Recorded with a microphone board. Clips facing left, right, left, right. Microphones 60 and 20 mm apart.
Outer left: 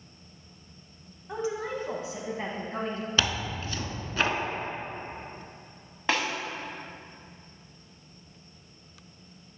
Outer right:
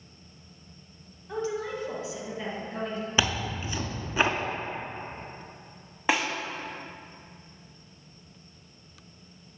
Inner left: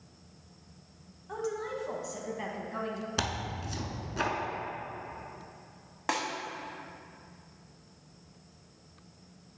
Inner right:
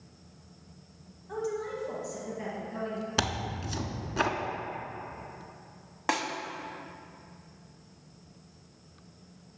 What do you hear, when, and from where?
1.3 s a woman speaking: 15° left (ahead or behind), 1.0 m; by 3.1 s 50° left (ahead or behind), 1.5 m
3.2 s tearing paper: 15° right (ahead or behind), 0.6 m
6.1 s a snare drum: 10° right (ahead or behind), 0.8 m